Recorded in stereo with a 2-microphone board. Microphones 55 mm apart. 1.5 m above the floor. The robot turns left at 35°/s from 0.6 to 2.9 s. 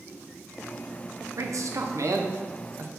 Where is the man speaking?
70° right (ahead or behind), 0.5 m; by 2.9 s 45° right (ahead or behind), 0.5 m.